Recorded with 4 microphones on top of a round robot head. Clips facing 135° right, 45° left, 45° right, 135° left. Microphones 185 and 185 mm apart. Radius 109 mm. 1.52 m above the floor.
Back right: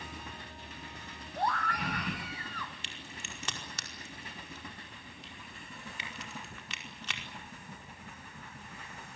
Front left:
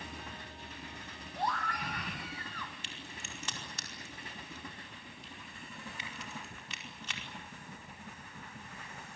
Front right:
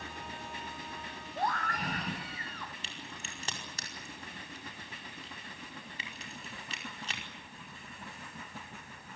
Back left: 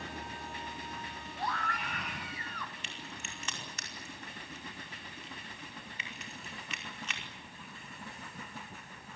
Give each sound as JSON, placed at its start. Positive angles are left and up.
{"t": 1.4, "sound": "a scream", "azimuth_deg": -90, "distance_m": 1.8}
{"t": 2.8, "sound": "a crack", "azimuth_deg": -105, "distance_m": 5.0}